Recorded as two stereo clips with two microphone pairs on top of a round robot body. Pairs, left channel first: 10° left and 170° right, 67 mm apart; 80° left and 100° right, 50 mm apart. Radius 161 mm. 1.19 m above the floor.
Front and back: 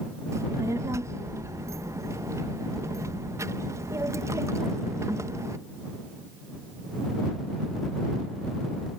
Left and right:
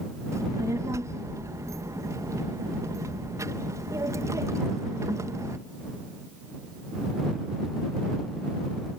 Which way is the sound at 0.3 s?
120° right.